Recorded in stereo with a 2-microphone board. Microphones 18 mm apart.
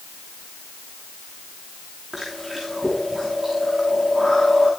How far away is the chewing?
About 8.5 m.